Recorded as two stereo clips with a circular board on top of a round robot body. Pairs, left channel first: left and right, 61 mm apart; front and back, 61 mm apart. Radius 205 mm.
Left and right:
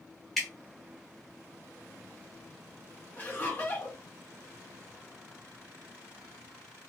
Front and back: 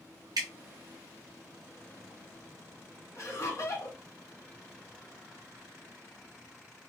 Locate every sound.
0.4 s dripping: straight behind, 0.7 m
3.2 s laughter: 35° left, 1.6 m